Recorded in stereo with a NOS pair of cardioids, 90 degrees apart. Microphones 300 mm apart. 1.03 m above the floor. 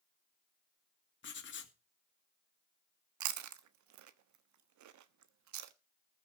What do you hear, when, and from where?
1.2 s writing: 40° left, 2.5 m
3.2 s chewing: 70° right, 1.2 m